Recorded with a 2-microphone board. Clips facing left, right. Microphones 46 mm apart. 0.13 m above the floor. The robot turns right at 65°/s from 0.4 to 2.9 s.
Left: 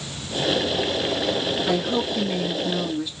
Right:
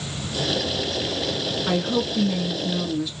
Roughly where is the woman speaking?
Ahead right.